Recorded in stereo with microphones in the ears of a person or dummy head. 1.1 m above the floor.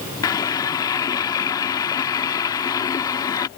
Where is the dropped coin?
No dropped coin in this recording.